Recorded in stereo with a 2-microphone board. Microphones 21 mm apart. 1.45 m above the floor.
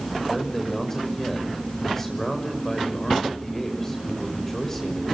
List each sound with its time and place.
0.3 s a man speaking: 20° left (ahead or behind), 7 m